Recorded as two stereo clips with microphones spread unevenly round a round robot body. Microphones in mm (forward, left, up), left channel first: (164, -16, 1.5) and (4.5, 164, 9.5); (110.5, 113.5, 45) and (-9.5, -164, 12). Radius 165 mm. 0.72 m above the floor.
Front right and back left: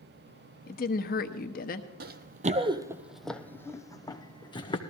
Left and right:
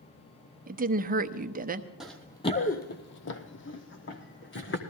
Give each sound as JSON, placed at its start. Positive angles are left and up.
{"t": 0.7, "sound": "a woman speaking", "azimuth_deg": -75, "distance_m": 0.9}
{"t": 2.0, "sound": "running footsteps", "azimuth_deg": 150, "distance_m": 1.0}